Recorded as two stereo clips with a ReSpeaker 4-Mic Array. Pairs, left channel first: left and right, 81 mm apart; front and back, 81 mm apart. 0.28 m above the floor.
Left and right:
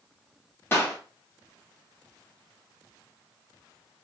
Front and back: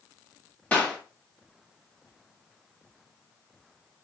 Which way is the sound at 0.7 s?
55° left.